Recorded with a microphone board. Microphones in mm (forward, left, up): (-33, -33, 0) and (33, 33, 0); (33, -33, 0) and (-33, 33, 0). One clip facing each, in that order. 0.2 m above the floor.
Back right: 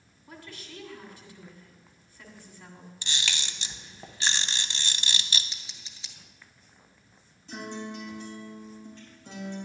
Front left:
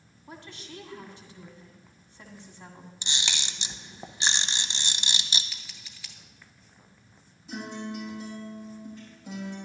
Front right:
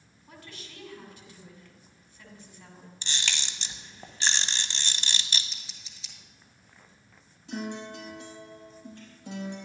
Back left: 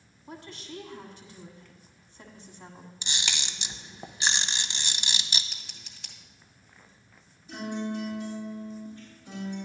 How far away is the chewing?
I don't hear chewing.